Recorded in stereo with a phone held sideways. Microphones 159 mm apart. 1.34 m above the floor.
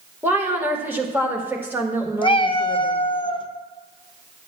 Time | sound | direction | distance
0.2 | a woman speaking | 15° right (ahead or behind) | 1.7 m
2.2 | a cat meowing | 30° left (ahead or behind) | 0.6 m